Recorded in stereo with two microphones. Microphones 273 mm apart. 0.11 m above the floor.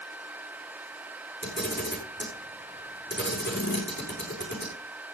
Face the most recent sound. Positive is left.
turn(degrees=40)  # may be behind; listen again after turning